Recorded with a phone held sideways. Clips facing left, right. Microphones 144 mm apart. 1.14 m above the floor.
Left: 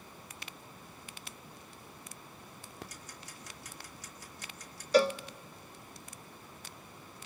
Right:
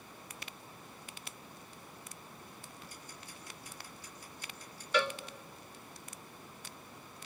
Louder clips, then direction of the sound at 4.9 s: Left 7 dB; 35° left (ahead or behind).